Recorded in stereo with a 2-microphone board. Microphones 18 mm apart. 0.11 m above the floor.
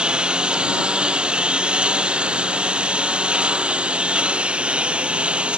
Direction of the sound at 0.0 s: 55° right (ahead or behind).